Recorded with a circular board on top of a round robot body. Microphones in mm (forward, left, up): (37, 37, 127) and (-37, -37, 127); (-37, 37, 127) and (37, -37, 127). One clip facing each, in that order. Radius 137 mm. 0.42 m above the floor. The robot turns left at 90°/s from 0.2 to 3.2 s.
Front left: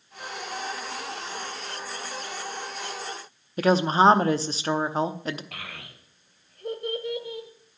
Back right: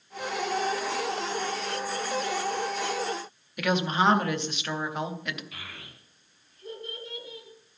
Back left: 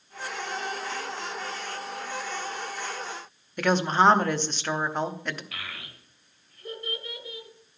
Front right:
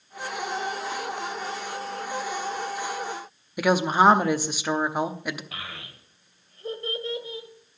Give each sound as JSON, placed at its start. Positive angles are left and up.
{"t": 3.6, "sound": "a woman speaking", "azimuth_deg": 30, "distance_m": 0.9}
{"t": 5.5, "sound": "a child speaking", "azimuth_deg": 20, "distance_m": 1.8}